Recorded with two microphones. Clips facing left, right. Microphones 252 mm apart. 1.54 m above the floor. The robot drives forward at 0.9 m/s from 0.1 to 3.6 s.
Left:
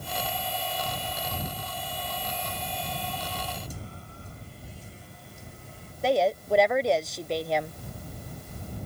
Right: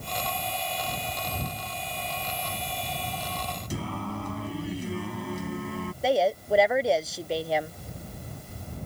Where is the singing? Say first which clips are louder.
Right 11 dB; 85° right.